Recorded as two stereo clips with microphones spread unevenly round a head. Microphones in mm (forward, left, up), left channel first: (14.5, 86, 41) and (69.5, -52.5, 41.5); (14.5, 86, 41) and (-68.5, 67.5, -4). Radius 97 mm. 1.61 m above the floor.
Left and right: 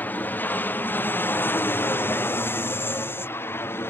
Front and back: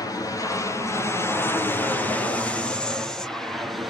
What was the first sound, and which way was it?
An aircraft, 60° left.